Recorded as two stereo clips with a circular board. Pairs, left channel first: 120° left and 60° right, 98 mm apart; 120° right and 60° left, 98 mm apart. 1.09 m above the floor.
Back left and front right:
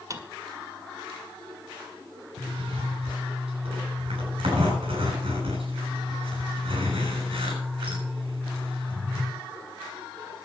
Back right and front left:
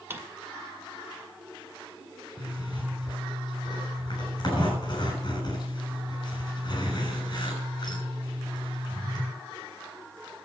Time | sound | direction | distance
0.1 | a drawer | 10° right | 1.6 m
2.4 | a zipper | 80° right | 7 m